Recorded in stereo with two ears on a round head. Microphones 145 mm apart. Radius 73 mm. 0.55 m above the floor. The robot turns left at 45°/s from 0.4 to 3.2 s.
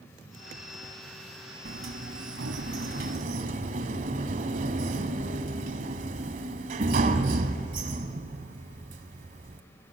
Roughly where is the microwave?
I don't hear a microwave.